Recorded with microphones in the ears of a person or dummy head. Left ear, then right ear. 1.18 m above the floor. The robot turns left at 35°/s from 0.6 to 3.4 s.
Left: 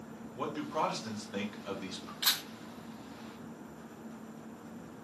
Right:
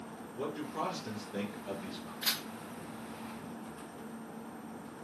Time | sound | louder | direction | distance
0.3 | a man speaking | left 4 dB | 155° left | 1.5 m
2.2 | a camera shutter | left 4 dB | 35° left (ahead or behind) | 2.5 m